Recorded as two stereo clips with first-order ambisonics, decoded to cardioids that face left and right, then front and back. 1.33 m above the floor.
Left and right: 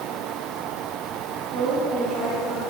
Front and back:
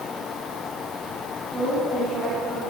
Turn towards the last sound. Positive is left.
turn(degrees=-90)